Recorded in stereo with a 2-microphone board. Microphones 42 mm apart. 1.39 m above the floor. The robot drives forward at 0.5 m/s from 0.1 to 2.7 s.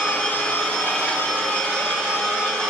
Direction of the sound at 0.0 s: 40° left (ahead or behind).